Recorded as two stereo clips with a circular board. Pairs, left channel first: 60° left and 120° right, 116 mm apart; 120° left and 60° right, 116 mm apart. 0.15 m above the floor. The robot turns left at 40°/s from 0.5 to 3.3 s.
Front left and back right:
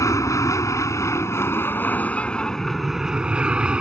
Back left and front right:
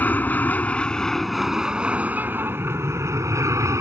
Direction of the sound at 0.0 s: 65° left.